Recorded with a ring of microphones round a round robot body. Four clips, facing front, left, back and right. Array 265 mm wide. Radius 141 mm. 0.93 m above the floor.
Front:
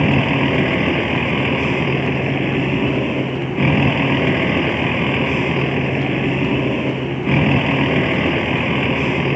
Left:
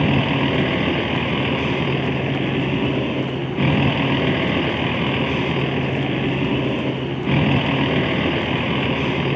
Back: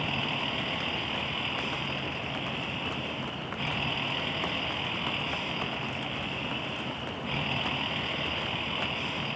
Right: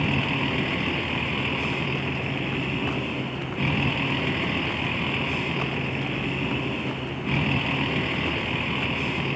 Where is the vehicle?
30° left.